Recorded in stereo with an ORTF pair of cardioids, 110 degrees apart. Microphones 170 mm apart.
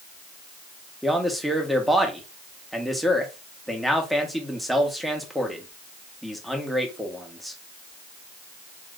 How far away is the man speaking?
About 1.3 m.